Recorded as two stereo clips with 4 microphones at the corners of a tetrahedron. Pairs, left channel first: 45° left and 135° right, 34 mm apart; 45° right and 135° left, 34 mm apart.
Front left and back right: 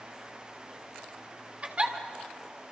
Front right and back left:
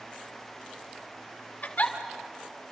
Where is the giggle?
80° right, 2 m.